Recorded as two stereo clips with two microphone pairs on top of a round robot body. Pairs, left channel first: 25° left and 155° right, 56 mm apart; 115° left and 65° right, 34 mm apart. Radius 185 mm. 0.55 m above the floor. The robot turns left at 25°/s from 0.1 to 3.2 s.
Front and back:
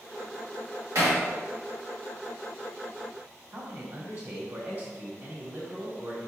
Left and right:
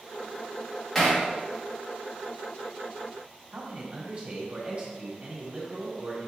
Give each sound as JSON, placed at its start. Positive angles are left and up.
{"t": 0.9, "sound": "hammering", "azimuth_deg": -160, "distance_m": 1.8}
{"t": 3.5, "sound": "a man speaking", "azimuth_deg": -110, "distance_m": 1.6}